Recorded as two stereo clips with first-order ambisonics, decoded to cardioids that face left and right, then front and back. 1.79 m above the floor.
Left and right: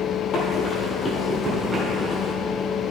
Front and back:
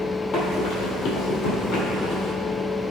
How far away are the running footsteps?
About 2.5 m.